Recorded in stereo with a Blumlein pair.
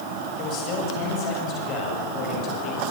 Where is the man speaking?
35° left, 7.5 m.